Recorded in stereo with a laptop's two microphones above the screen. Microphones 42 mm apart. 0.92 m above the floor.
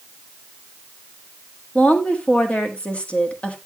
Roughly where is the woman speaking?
Left.